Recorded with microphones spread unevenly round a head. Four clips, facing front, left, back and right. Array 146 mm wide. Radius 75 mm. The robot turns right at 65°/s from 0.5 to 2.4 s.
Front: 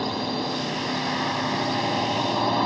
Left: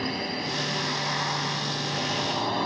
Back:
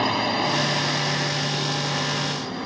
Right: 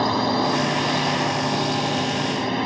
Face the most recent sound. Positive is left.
turn(degrees=0)